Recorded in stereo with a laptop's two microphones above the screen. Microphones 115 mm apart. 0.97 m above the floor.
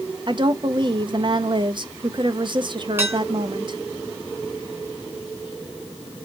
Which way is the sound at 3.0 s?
20° right (ahead or behind).